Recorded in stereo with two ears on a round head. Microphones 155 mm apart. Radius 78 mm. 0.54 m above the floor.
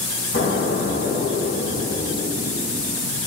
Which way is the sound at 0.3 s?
80° left.